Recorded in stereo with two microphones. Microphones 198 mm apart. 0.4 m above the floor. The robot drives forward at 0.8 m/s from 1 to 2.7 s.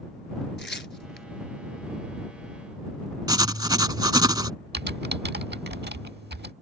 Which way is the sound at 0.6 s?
65° left (ahead or behind).